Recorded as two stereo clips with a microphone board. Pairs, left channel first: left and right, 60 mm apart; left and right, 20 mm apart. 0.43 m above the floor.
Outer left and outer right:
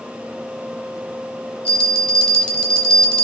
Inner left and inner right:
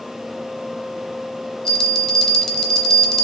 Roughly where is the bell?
Centre.